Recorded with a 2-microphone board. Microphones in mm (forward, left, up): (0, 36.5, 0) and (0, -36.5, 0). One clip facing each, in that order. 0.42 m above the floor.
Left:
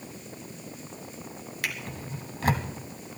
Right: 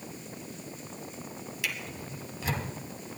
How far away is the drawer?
About 1.5 m.